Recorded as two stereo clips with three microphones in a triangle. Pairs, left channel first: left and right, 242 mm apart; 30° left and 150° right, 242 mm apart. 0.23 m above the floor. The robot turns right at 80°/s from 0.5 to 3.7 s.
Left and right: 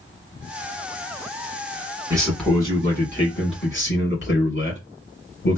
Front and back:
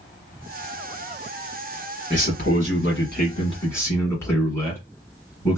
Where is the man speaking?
20° right, 1.6 m; by 5.6 s 105° left, 1.6 m.